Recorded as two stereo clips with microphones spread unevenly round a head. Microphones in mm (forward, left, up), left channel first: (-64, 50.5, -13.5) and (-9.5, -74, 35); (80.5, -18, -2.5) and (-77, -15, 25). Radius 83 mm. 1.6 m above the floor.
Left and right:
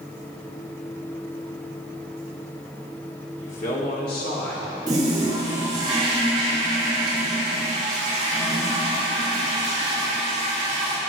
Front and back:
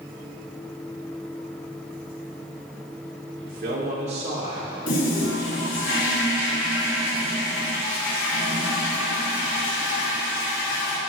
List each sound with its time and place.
3.4 s a man speaking: 155° left, 1.8 m; by 4.8 s 110° left, 1.9 m
4.9 s a toilet flushing: 5° right, 1.9 m